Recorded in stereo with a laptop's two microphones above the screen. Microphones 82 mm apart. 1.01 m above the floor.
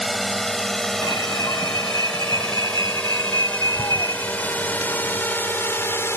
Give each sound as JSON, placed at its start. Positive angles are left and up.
{"t": 0.0, "sound": "a drone", "side_deg": 0}
{"t": 1.0, "sound": "an alarm", "side_deg": 50}